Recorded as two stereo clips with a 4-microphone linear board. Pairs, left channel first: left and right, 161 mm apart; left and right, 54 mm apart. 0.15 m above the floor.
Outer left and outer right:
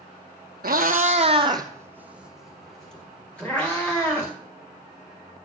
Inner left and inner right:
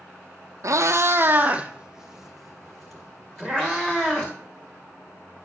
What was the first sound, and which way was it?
A cat meowing, 75° right (ahead or behind).